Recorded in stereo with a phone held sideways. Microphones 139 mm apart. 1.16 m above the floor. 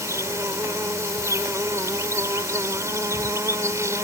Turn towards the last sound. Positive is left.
turn(degrees=-20)  # may be behind; listen again after turning